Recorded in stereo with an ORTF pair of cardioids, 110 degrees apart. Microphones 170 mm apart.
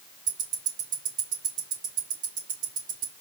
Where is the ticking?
50° right, 1.8 m.